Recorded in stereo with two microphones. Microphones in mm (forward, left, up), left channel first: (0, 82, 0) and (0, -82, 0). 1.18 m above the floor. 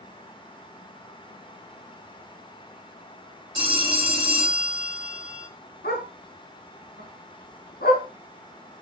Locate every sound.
3.5 s a phone ringing: 30° right (ahead or behind), 3.5 m
5.8 s a dog barking: 75° left (ahead or behind), 4.5 m